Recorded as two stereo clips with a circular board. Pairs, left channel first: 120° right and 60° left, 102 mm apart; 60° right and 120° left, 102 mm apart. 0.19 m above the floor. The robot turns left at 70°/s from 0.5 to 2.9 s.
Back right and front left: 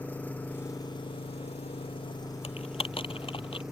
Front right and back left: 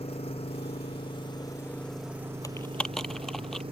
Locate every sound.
0.0 s an engine running: 45° right; by 3.7 s 145° left
2.4 s typing on a keyboard: 115° right; by 3.6 s 145° right